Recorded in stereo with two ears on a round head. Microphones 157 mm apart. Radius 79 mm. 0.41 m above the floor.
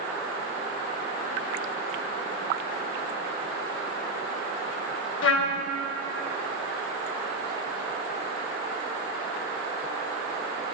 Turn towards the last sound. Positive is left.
turn(degrees=75)  # may be behind; listen again after turning